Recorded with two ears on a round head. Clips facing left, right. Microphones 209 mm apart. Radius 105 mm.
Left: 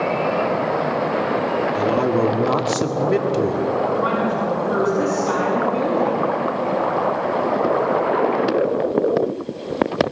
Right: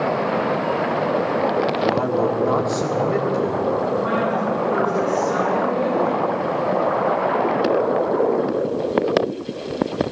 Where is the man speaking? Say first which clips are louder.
Left 1 dB; 40° left (ahead or behind), 2.0 m.